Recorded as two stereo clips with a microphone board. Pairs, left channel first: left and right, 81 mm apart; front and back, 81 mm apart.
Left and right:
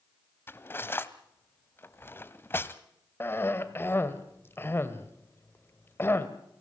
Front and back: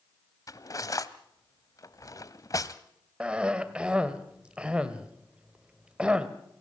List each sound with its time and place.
0.5 s cutlery clinking: 35° left, 1.0 m
3.2 s a cough: 115° left, 1.8 m